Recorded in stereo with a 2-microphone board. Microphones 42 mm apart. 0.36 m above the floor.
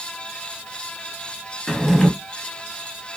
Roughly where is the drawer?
Centre.